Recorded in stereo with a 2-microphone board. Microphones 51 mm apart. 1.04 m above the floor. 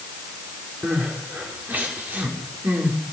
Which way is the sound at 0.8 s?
40° right (ahead or behind).